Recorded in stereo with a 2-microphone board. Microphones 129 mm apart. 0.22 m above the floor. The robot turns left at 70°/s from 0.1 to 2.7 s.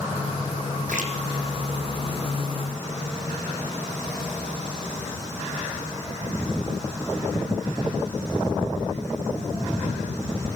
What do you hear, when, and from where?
0.9 s a splash: 80° right, 3.5 m; by 1.1 s 60° right (ahead or behind), 3.5 m